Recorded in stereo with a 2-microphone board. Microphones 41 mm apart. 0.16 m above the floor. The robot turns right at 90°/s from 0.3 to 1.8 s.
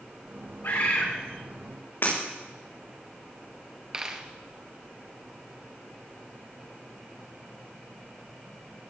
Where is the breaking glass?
65° left (ahead or behind), 6.5 m.